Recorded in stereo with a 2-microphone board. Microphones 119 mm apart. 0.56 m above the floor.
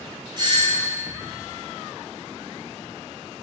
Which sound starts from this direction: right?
A doorbell, at 0.4 s.